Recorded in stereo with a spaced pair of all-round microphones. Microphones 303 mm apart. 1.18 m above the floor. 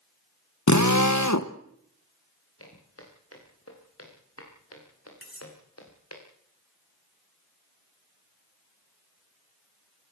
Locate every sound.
0.7 s a drill: 70° left (ahead or behind), 1.0 m
2.6 s footsteps: 50° left (ahead or behind), 8.5 m; by 6.2 s 55° left (ahead or behind), 7 m
5.2 s cutlery clinking: 40° right (ahead or behind), 5.5 m